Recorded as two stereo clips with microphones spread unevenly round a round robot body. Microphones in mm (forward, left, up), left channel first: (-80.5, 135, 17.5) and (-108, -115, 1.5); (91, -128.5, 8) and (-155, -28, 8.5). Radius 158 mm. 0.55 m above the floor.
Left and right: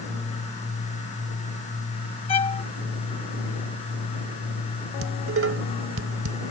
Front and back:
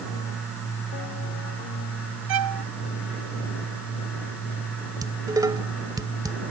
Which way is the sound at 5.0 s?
125° right.